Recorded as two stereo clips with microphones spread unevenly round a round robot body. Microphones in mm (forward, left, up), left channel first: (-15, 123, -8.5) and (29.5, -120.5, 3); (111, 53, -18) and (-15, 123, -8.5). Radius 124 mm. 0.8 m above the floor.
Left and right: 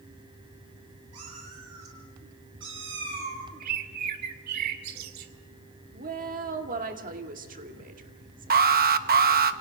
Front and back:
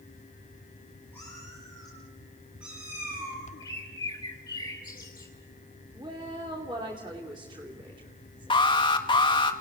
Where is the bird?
105° right, 1.9 m.